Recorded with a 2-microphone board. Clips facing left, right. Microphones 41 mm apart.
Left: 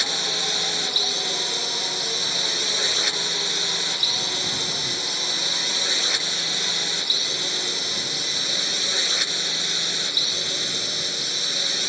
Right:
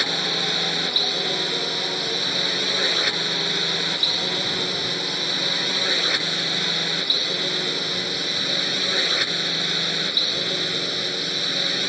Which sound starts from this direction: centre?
A drone, at 0.0 s.